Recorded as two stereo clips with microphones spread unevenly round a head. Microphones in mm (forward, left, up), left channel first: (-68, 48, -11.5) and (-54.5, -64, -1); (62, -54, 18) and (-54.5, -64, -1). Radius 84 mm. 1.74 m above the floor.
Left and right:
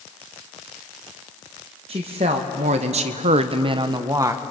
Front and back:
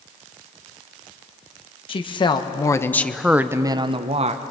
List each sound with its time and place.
1.9 s a woman speaking: 30° right, 1.8 m; by 4.4 s 145° right, 1.4 m